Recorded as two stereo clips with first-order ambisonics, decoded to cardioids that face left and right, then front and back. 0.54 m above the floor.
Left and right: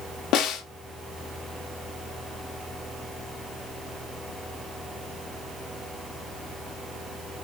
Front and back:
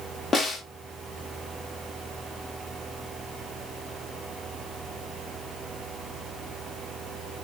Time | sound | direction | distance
0.3 | a snare drum | 65° left | 0.7 m